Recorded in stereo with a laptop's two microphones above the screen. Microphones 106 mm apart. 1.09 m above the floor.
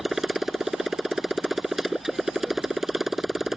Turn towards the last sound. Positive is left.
turn(degrees=-5)  # may be behind; listen again after turning